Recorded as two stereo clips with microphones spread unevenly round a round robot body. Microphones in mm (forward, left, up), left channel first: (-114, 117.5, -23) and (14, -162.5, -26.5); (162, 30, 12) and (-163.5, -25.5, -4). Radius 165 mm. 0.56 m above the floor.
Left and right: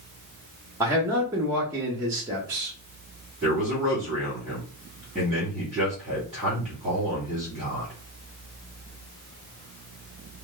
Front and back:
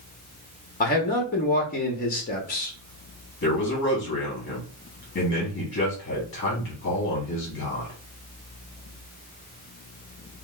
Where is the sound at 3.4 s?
20° left, 1.3 m.